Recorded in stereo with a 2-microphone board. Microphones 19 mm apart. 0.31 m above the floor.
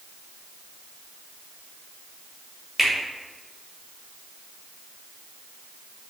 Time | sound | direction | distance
2.8 | a finger snap | 15° right (ahead or behind) | 0.8 m